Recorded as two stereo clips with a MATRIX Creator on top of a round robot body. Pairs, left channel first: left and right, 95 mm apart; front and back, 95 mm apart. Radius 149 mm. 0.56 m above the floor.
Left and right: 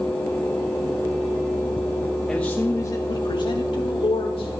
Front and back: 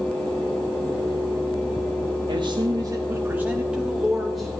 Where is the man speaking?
170° left, 1.4 m; by 4.6 s 90° left, 3 m.